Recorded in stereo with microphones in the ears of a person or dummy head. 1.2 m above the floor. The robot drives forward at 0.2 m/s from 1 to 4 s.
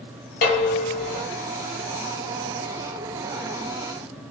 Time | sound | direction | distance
0.4 | dishes clattering | 45° left (ahead or behind) | 1.1 m